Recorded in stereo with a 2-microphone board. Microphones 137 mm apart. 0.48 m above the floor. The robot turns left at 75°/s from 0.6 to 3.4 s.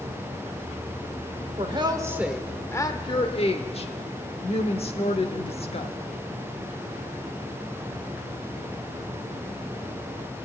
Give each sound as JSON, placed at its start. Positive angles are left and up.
{"t": 1.6, "sound": "a woman speaking", "azimuth_deg": -120, "distance_m": 1.1}